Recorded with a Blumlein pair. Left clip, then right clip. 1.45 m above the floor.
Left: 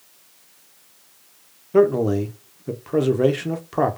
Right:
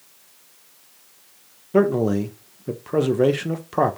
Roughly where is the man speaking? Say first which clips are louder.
Left 2 dB; ahead.